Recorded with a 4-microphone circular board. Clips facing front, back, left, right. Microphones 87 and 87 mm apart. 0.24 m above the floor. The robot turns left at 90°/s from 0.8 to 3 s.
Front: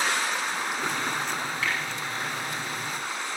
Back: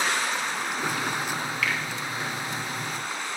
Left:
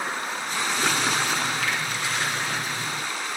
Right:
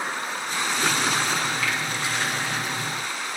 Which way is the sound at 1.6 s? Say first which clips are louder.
Back 1 dB, even; 60° left.